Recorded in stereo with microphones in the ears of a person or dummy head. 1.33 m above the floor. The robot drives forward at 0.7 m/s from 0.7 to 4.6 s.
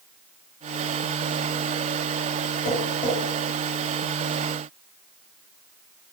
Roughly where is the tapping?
Left.